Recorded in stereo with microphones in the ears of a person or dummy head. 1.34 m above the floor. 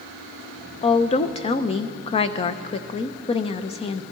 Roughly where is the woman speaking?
Left.